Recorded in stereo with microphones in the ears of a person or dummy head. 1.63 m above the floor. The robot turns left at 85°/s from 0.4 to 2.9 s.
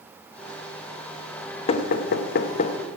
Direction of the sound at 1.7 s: 40° left (ahead or behind).